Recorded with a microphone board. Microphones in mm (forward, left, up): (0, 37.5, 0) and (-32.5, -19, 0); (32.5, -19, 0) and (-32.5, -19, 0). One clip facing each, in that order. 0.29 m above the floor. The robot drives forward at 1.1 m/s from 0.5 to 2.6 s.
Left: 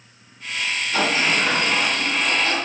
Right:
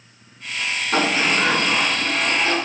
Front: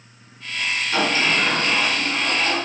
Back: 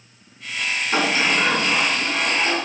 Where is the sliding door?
115° right, 3 m; by 2.6 s 140° right, 4 m.